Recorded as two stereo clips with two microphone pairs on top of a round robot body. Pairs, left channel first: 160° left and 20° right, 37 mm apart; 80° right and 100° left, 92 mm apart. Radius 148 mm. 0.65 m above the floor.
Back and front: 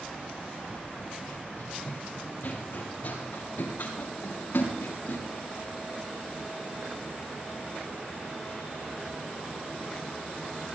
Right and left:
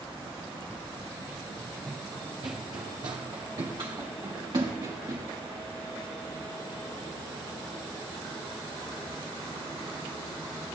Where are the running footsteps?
135° right, 0.8 m; by 5.3 s 140° left, 5 m.